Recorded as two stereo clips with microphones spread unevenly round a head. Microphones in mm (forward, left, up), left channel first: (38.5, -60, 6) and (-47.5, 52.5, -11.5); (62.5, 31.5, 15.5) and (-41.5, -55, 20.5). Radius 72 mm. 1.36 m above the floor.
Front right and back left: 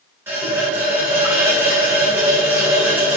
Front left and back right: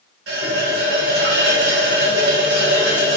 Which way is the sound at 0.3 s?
155° right.